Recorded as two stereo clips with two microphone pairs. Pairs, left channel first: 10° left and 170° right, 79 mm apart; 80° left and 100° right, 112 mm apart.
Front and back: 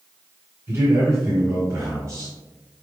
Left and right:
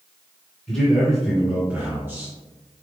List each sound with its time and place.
0.7 s a man speaking: 160° left, 2 m; by 2.3 s 155° right, 2.5 m